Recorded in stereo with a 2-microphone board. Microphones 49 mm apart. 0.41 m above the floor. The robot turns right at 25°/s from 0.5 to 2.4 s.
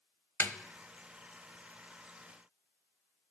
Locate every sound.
0.4 s a snare drum: 50° left (ahead or behind), 0.6 m